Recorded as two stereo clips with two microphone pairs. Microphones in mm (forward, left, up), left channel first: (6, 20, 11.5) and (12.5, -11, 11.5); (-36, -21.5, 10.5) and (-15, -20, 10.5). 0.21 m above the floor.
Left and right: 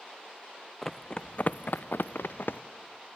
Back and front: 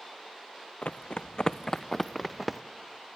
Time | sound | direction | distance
0.8 | running footsteps | straight behind | 0.8 m